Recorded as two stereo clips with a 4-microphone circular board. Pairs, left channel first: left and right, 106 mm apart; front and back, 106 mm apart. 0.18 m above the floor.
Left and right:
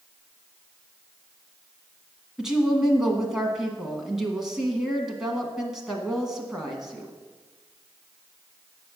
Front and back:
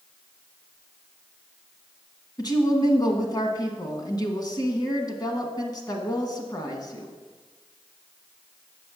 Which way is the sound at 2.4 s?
5° right.